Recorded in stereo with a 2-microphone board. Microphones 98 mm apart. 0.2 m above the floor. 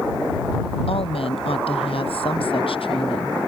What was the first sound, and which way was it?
A woman speaking, 75° left (ahead or behind).